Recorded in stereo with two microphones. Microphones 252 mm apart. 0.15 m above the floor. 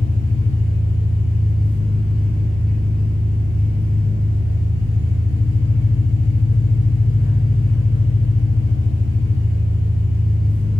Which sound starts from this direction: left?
An engine running, at 0.0 s.